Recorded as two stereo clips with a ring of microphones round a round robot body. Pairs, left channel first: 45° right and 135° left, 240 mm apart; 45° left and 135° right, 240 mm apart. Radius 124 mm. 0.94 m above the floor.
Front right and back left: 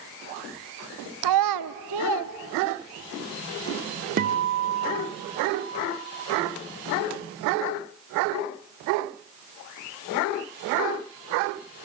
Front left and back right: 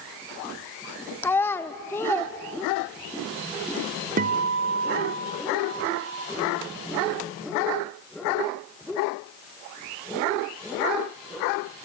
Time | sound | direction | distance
1.2 | a child speaking | 125° left | 0.6 m
4.2 | a guitar | straight behind | 0.6 m